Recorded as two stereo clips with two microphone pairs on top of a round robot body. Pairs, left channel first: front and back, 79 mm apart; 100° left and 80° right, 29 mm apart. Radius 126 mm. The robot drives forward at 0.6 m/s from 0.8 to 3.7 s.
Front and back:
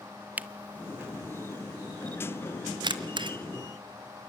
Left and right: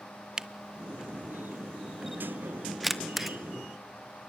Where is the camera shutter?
120° right, 0.8 m; by 3.4 s 170° right, 1.9 m.